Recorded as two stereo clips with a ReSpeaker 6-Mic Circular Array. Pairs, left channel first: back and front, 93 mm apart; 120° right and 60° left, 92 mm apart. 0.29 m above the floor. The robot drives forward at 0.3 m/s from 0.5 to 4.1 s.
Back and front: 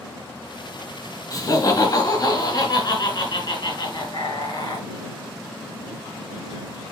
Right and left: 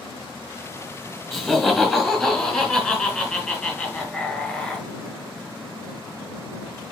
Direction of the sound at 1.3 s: 155° left.